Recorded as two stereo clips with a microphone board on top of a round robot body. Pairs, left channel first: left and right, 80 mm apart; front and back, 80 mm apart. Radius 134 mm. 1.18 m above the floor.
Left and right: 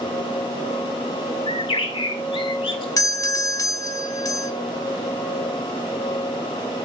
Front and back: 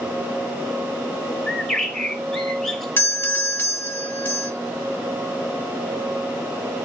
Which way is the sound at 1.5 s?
85° left.